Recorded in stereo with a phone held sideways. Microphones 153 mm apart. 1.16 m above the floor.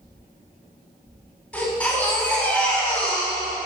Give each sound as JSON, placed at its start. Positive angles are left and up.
{"t": 1.5, "sound": "a baby crying", "side_deg": 10, "distance_m": 6.0}